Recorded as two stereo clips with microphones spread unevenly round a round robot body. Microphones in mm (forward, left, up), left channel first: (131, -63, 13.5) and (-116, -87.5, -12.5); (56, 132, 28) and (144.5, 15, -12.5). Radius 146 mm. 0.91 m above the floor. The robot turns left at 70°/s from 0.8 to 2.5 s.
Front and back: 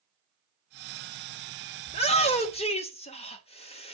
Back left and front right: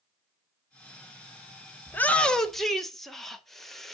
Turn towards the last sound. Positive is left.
turn(degrees=-10)